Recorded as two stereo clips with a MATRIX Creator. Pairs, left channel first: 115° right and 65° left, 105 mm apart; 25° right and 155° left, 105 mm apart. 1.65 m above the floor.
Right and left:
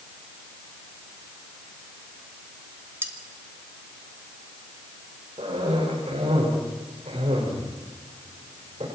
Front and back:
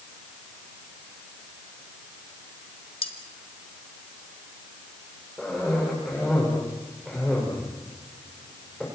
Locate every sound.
3.0 s cutlery clinking: straight ahead, 2 m
5.4 s a cough: 65° left, 6 m